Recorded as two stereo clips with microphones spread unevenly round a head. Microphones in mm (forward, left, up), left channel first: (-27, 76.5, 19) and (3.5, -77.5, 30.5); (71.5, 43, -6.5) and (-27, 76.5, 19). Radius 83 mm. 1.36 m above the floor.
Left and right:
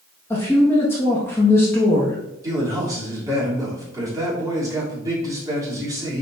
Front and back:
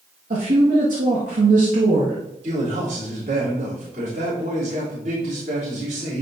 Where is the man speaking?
150° right, 3 m.